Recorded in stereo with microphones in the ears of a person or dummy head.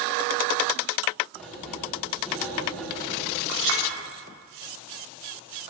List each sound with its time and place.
1.3 s writing: 5° left (ahead or behind), 2.5 m
3.5 s a clink: 65° right (ahead or behind), 2.5 m